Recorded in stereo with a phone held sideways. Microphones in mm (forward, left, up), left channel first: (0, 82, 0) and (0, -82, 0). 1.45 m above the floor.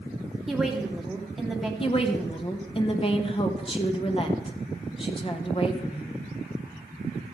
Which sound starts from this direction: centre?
A woman speaking, at 0.5 s.